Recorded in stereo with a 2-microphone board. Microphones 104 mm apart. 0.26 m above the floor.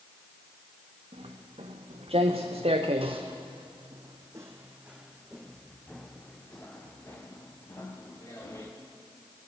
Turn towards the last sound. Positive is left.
turn(degrees=30)  # may be behind; listen again after turning